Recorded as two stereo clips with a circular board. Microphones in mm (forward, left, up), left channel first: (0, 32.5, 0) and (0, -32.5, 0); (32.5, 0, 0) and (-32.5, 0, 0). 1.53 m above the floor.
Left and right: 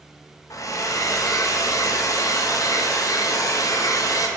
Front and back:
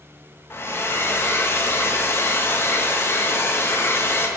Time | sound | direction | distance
0.5 | a hair dryer | 55° left | 0.7 m